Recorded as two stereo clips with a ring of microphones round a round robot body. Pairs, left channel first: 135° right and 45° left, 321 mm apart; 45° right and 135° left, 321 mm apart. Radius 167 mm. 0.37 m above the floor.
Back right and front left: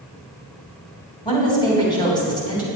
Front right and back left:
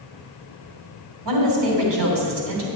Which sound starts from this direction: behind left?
A woman speaking, at 1.2 s.